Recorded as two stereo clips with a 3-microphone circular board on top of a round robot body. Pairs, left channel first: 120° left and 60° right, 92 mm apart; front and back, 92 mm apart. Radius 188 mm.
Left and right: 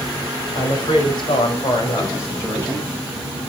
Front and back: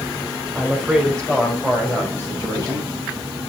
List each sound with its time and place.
0.6 s a woman speaking: 95° left, 4.5 m; by 2.9 s 50° left, 5 m